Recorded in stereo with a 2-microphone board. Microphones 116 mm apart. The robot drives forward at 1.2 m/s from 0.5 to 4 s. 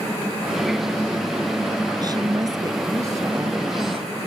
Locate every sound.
2.0 s a woman speaking: 35° right (ahead or behind); by 4.1 s 20° right (ahead or behind)